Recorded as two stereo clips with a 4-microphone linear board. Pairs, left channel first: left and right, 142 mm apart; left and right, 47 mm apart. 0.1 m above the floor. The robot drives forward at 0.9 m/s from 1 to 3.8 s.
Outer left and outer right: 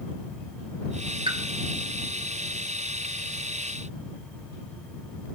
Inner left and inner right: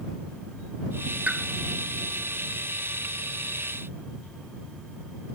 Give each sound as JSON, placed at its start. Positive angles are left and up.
{"t": 1.3, "sound": "a pop", "side_deg": -35, "distance_m": 1.0}